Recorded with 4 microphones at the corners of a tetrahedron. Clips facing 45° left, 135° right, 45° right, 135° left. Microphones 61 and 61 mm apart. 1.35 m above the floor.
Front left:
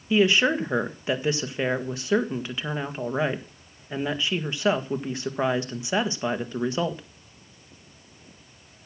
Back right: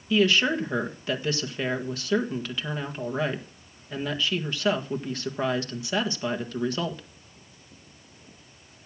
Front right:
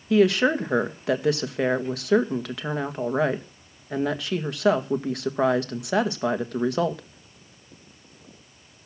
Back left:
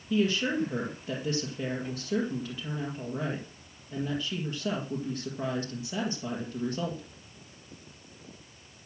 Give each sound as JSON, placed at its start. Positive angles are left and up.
{"t": 0.1, "sound": "a woman speaking", "azimuth_deg": -25, "distance_m": 1.7}